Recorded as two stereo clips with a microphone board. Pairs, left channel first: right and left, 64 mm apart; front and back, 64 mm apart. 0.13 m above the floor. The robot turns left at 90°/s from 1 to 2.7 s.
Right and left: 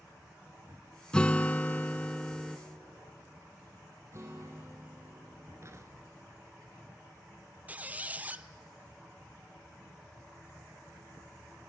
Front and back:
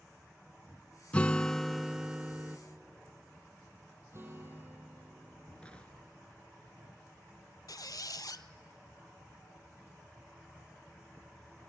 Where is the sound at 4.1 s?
135° left, 4.5 m.